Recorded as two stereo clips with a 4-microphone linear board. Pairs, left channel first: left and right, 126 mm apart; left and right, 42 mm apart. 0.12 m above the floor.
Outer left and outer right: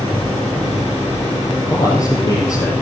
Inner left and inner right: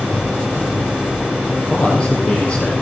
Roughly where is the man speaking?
Left.